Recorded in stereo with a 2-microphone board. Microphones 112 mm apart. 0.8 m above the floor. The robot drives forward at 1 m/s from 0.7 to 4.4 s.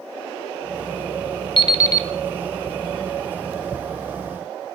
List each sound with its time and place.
1.6 s an alarm clock: 45° left (ahead or behind), 0.6 m; by 2.1 s 25° left (ahead or behind), 1.1 m